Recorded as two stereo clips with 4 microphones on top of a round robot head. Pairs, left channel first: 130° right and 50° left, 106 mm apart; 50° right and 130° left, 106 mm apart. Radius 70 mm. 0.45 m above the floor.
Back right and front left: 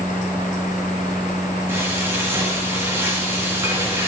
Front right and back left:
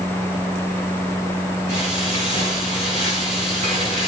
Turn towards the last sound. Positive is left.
turn(degrees=120)